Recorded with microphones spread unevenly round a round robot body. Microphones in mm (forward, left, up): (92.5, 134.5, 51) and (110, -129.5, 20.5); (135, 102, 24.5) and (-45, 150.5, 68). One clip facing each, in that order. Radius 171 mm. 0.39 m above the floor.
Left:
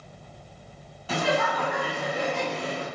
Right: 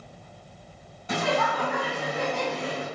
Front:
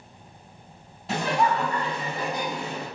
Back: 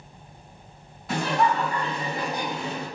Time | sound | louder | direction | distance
1.1 | laughter | left 1 dB, even | straight ahead | 1.3 m